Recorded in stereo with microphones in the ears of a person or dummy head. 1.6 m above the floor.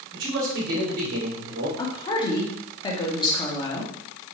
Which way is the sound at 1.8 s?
25° left (ahead or behind).